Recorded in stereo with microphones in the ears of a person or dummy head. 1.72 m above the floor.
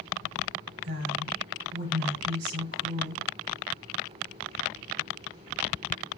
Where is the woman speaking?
75° right (ahead or behind), 6.5 m.